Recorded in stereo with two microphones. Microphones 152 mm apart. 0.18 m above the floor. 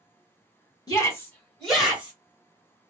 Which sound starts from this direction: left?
A shout, at 0.9 s.